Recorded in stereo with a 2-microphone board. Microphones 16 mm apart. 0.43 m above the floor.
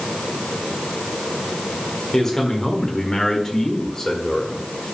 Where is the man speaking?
25° left (ahead or behind), 1.6 m; by 4.6 s 30° left (ahead or behind), 2.0 m.